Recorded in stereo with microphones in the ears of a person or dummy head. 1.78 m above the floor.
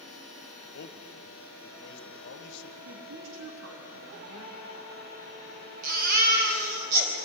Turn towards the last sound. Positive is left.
turn(degrees=-50)  # may be behind; listen again after turning